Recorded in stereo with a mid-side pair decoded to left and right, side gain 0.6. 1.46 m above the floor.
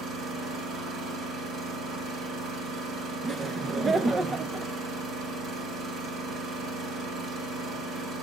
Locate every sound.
0.0 s an engine running: 55° right, 4.5 m
3.2 s laughter: 30° right, 0.9 m